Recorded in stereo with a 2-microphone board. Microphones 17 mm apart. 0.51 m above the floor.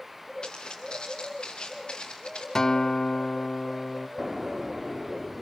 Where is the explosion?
15° right (ahead or behind), 1.0 m.